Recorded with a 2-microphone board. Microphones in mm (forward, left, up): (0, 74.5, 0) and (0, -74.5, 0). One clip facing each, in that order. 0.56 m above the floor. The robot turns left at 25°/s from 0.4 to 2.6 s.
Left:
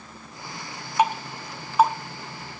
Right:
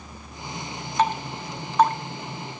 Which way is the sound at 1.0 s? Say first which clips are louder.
Left 1 dB; 10° left (ahead or behind).